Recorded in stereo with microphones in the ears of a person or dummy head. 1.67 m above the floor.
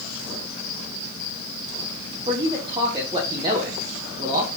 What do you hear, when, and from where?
2.3 s a man speaking: 25° right (ahead or behind), 1.0 m